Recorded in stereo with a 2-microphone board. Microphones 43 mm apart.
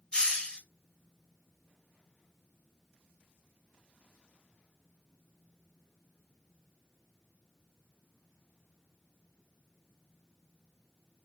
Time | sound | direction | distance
0.1 | a hiss | 20° left (ahead or behind) | 0.9 m